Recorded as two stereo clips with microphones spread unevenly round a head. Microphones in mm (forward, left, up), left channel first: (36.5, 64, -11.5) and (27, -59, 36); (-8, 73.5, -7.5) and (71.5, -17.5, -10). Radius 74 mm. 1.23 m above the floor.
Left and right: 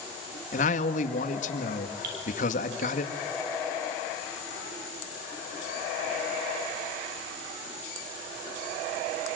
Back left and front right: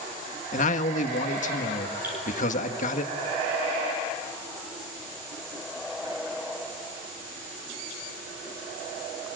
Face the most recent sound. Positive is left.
turn(degrees=-125)